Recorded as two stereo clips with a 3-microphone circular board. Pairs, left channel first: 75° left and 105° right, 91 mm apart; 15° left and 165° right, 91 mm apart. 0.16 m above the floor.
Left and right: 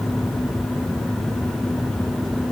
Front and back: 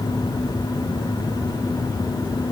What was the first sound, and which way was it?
Only background noise.